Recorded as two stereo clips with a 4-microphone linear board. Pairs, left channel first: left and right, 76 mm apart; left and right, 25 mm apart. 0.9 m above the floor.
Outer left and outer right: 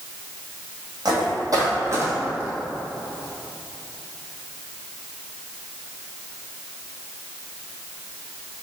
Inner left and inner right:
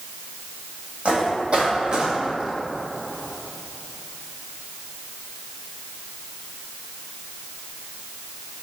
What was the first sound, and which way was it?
Footsteps, 55° right (ahead or behind).